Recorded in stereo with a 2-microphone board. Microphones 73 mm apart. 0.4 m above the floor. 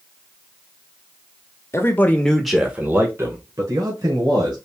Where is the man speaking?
35° left (ahead or behind), 1.0 m; by 4.5 s 65° right (ahead or behind), 2.0 m.